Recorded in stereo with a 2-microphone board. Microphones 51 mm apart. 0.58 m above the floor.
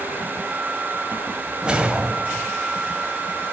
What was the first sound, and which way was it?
A whoosh, 20° right (ahead or behind).